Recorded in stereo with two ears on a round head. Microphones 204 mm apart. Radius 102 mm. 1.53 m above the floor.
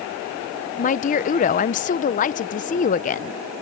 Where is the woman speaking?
35° left (ahead or behind).